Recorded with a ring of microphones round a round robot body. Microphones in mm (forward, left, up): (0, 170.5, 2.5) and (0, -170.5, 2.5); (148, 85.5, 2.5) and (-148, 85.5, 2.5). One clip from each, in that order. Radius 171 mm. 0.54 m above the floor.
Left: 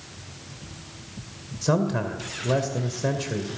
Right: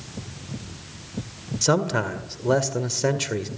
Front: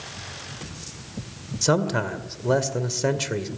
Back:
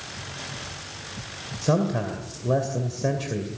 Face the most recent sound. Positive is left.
turn(degrees=-40)